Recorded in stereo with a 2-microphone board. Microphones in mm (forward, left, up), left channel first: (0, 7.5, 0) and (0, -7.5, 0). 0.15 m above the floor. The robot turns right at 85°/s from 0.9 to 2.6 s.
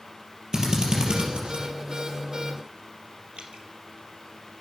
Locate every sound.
0.5 s a drill: 45° right (ahead or behind), 5 m; by 1.6 s 60° right (ahead or behind), 5 m
3.4 s dripping: 70° right (ahead or behind), 3 m